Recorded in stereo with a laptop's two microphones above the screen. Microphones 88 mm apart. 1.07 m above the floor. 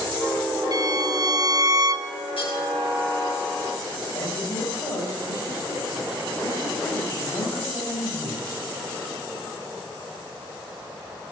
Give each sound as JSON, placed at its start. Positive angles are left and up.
{"t": 0.7, "sound": "a violin", "side_deg": -40, "distance_m": 0.6}
{"t": 2.4, "sound": "cutlery clinking", "side_deg": 80, "distance_m": 10.0}
{"t": 4.1, "sound": "a man speaking", "side_deg": 50, "distance_m": 7.0}